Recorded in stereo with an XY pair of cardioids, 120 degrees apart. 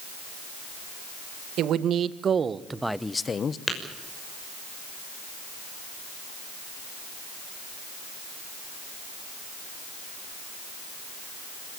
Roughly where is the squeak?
No squeak in this recording.